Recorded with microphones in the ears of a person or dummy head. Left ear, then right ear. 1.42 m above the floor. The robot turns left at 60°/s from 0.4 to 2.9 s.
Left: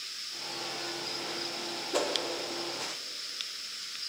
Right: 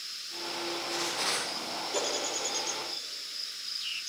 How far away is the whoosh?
About 1.3 m.